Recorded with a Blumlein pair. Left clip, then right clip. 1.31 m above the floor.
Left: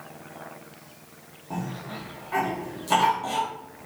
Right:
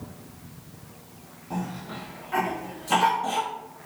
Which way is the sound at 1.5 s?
10° left.